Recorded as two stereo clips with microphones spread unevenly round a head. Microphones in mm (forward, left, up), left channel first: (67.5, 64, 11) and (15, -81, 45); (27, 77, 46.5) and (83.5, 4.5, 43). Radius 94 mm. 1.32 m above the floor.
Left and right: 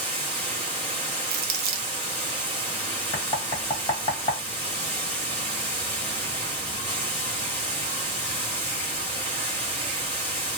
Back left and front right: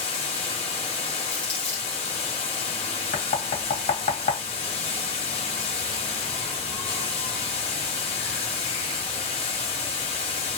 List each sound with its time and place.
0.0 s running water: 160° left, 0.9 m
1.3 s crumpling: 150° right, 0.5 m
3.1 s knocking: 140° left, 1.0 m